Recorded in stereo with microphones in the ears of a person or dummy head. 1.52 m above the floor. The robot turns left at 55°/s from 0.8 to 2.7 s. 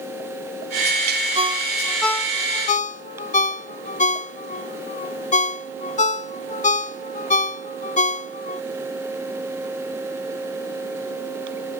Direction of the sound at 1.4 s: 35° right (ahead or behind).